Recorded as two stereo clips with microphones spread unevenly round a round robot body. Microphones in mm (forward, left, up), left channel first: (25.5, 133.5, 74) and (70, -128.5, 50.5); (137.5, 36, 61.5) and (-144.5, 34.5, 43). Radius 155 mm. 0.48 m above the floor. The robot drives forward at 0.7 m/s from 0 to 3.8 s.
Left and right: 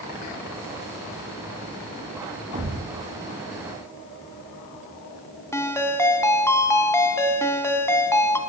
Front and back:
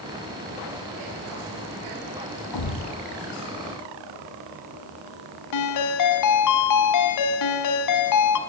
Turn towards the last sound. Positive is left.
turn(degrees=20)